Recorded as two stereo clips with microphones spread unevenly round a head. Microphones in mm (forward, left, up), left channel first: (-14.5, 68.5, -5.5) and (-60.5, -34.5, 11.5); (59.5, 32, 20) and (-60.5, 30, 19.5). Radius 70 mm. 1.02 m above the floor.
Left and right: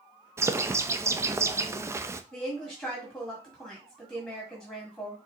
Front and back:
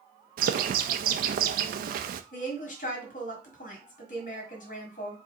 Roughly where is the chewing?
I don't hear chewing.